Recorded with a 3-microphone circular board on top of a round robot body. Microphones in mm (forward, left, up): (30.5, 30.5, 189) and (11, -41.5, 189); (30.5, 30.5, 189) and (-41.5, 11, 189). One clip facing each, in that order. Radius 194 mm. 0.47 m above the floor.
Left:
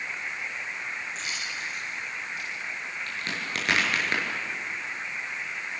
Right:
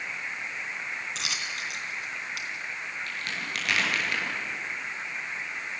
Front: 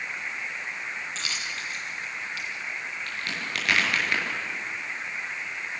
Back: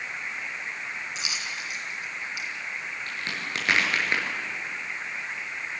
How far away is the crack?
About 6.5 m.